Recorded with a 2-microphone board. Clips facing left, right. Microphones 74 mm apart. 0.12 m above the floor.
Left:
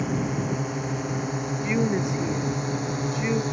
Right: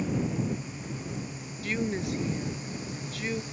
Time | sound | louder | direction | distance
0.0 | a drone | left 3 dB | 75° left (ahead or behind) | ?
1.6 | a woman speaking | left 5 dB | 25° left (ahead or behind) | ?